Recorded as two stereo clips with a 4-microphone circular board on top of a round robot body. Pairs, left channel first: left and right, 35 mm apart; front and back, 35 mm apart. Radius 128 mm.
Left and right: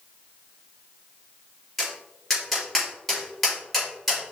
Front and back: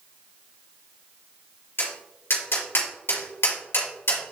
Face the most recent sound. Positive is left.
turn(degrees=0)